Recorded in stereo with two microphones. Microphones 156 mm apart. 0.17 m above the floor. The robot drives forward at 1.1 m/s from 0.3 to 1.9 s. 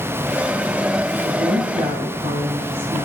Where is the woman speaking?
40° right (ahead or behind), 4 m; by 3.0 s 50° right (ahead or behind), 3.5 m.